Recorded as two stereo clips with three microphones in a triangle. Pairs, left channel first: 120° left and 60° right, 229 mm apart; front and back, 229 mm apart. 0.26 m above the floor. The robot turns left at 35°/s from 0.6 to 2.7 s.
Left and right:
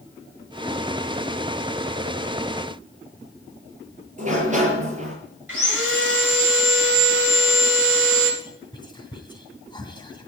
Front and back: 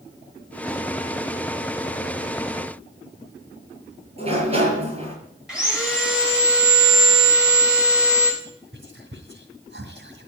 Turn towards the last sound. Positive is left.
turn(degrees=-175)